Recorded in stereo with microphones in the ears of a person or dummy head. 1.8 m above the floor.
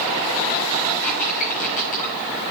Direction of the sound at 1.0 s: 45° left (ahead or behind).